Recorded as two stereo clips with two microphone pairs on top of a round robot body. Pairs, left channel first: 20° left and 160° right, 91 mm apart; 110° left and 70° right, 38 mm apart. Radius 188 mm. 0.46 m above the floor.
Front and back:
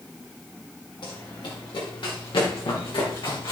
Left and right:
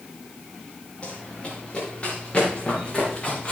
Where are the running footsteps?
50° left, 4 m; by 3.5 s 45° left, 6 m.